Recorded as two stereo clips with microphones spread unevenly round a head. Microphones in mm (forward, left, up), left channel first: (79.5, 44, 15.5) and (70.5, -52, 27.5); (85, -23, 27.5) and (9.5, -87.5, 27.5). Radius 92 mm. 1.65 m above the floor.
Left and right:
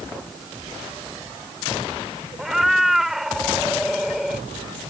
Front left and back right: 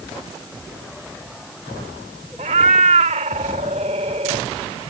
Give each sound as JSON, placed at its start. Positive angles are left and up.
{"t": 2.4, "sound": "a cat meowing", "azimuth_deg": -175}